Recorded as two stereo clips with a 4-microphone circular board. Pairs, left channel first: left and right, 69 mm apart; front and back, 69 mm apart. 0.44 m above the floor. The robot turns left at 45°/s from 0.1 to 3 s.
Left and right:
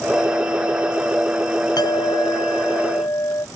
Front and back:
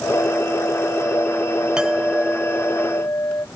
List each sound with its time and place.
1.8 s a clink: 105° left; by 3.5 s 50° left